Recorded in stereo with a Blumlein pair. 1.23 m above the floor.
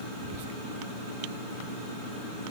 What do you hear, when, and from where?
0.2 s whispering: 50° right, 0.7 m